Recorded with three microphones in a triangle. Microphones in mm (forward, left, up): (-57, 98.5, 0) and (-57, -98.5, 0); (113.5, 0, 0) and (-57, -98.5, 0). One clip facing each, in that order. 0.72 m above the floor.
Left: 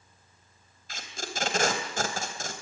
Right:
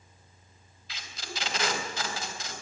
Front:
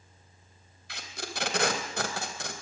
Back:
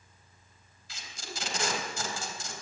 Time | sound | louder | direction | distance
0.9 | tape being pulled | left 4 dB, front 5 dB | 50° left | 3.5 m